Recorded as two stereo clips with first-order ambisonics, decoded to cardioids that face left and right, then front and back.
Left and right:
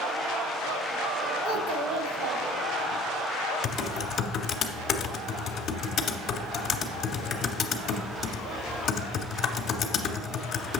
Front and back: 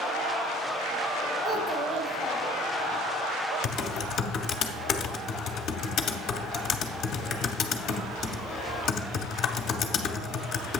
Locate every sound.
1.4 s a child speaking: 95° right, 1.4 m
3.6 s typing on a keyboard: 40° left, 0.8 m